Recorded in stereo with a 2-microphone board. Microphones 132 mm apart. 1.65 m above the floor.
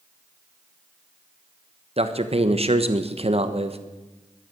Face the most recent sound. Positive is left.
turn(degrees=-50)  # may be behind; listen again after turning